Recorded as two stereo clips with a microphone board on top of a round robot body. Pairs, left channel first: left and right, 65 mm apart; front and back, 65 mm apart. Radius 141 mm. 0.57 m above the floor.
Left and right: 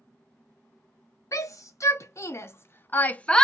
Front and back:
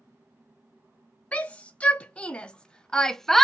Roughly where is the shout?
Ahead left.